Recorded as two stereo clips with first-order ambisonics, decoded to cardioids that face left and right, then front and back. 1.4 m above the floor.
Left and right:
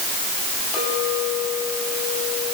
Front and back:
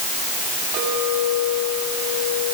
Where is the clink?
135° left, 9 m.